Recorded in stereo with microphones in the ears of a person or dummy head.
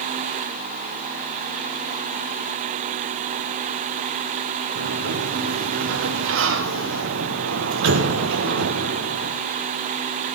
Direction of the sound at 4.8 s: 60° right (ahead or behind).